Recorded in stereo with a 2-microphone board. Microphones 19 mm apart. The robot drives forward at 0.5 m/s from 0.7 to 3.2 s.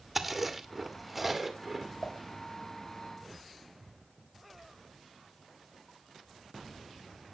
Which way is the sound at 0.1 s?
10° right (ahead or behind).